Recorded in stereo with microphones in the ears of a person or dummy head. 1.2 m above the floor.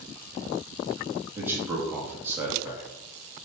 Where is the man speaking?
15° right (ahead or behind), 1.9 m.